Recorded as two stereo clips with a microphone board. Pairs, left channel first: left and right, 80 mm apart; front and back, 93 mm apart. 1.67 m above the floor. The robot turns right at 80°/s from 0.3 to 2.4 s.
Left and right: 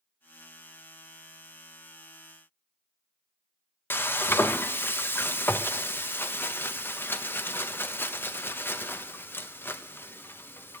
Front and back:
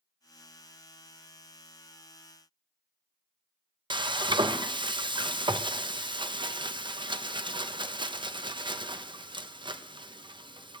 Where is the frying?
150° left, 0.6 m.